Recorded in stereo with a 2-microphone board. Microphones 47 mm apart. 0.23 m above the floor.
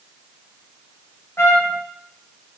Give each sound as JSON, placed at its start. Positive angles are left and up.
{"t": 1.4, "sound": "a trumpet", "side_deg": 70, "distance_m": 2.0}